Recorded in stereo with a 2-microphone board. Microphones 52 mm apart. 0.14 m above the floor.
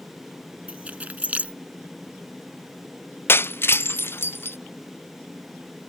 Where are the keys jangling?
30° right (ahead or behind).